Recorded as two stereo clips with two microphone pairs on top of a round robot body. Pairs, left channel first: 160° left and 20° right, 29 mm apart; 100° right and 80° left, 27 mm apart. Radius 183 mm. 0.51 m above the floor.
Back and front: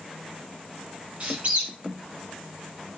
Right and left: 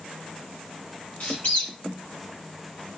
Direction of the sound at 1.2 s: 65° right.